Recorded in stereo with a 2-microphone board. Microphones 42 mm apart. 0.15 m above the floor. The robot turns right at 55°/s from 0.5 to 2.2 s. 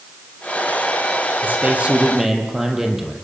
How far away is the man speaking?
About 5 m.